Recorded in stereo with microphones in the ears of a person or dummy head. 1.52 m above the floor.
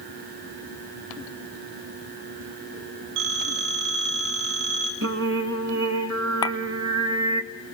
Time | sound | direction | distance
3.2 | a phone ringing | 60° right (ahead or behind) | 5 m
5.0 | singing | 70° right (ahead or behind) | 1.0 m
6.4 | a clink | 20° left (ahead or behind) | 0.8 m